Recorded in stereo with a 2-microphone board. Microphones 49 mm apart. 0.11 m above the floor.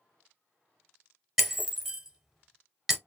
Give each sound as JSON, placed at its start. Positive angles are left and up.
{"t": 1.4, "sound": "breaking glass", "side_deg": -5, "distance_m": 1.1}